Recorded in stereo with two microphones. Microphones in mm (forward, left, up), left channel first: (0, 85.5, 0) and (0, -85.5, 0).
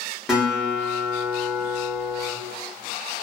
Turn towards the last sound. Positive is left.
turn(degrees=-5)  # may be behind; listen again after turning